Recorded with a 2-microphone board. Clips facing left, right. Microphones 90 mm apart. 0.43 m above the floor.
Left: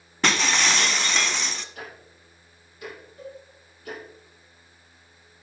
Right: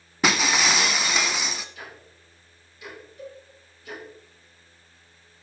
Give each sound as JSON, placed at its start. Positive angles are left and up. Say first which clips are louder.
{"t": 0.2, "sound": "breaking glass", "louder": "right 1 dB", "side_deg": -10, "distance_m": 0.8}
{"t": 1.8, "sound": "ticking", "louder": "left 2 dB", "side_deg": 50, "distance_m": 6.5}
{"t": 3.2, "sound": "a cowbell", "louder": "even", "side_deg": 35, "distance_m": 3.0}